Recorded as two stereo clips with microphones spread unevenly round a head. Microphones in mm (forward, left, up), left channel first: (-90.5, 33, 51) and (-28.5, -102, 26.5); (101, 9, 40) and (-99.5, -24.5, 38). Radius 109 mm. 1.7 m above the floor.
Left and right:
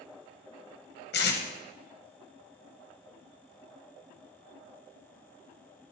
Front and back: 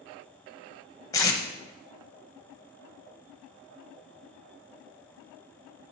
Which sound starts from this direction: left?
Tape being pulled, at 1.1 s.